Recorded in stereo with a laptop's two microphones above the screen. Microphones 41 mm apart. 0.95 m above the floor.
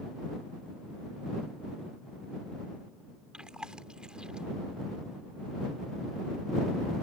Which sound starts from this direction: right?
Chewing, at 3.3 s.